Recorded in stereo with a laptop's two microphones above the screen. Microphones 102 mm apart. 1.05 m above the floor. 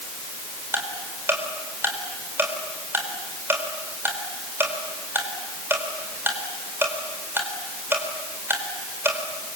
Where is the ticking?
20° right (ahead or behind), 4.5 m.